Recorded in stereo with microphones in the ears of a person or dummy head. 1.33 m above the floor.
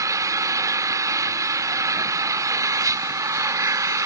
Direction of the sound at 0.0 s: 15° right (ahead or behind).